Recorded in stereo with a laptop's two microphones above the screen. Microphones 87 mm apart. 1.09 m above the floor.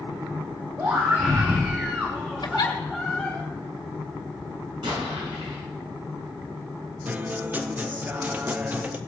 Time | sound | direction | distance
0.8 | a scream | 35° right (ahead or behind) | 1.9 m
2.4 | a giggle | 55° left (ahead or behind) | 1.6 m
4.8 | an explosion | 85° right | 7 m
7.0 | a guitar | 20° right (ahead or behind) | 0.6 m